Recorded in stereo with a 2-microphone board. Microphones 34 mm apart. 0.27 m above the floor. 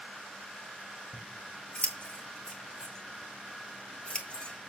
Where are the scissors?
35° left (ahead or behind), 2.5 m.